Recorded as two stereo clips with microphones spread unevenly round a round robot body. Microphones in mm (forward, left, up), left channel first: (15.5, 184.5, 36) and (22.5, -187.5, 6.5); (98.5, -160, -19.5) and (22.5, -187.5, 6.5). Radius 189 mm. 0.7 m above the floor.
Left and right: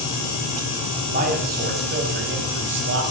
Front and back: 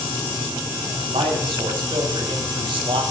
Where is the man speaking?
160° right, 4 m; by 3.0 s 145° right, 3 m.